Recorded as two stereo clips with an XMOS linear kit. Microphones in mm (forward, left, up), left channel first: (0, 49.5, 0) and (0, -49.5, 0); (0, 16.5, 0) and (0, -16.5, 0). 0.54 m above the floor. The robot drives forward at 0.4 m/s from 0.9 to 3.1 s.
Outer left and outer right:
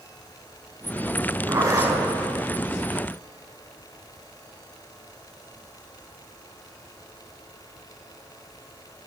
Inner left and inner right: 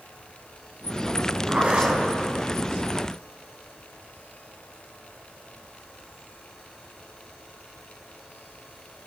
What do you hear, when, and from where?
1.5 s a zipper: 35° right (ahead or behind), 4.5 m